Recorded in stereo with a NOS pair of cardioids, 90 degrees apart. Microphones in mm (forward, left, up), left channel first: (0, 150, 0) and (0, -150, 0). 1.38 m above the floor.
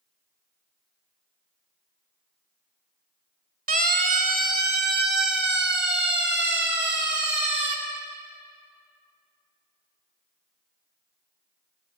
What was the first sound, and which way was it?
A siren, 30° right.